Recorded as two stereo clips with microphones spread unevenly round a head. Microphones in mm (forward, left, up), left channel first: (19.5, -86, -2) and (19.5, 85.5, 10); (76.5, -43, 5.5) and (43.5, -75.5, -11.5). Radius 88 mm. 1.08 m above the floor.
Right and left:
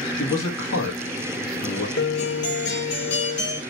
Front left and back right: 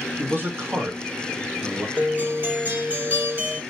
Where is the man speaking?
105° right, 1.3 m.